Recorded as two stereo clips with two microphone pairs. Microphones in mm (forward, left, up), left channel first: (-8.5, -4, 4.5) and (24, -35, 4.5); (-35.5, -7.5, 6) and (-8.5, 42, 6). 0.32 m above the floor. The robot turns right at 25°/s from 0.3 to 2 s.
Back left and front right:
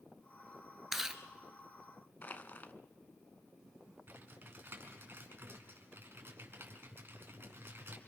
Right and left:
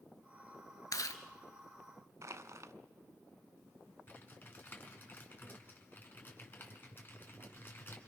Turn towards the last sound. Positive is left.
turn(degrees=-70)